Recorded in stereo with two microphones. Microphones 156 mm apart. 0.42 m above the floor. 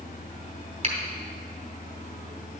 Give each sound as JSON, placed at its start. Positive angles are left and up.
{"t": 0.8, "sound": "a finger snap", "side_deg": -40, "distance_m": 2.0}